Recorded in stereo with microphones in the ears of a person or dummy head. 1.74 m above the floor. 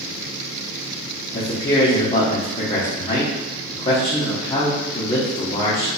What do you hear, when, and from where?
1.3 s a man speaking: 30° left (ahead or behind), 0.9 m